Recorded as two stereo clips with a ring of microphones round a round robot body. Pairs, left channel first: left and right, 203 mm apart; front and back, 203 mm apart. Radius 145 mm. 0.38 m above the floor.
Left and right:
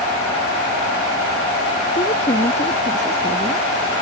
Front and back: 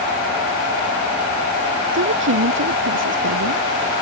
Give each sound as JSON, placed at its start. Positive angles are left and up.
{"t": 1.9, "sound": "a woman speaking", "azimuth_deg": 160}